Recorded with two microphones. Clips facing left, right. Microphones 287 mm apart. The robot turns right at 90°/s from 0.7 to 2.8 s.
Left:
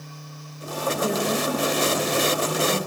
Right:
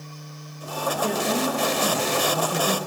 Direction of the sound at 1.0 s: 165° left.